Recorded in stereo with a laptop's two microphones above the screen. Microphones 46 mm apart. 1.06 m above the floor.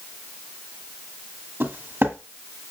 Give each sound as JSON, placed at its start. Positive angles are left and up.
{"t": 1.6, "sound": "footsteps", "side_deg": -45, "distance_m": 1.9}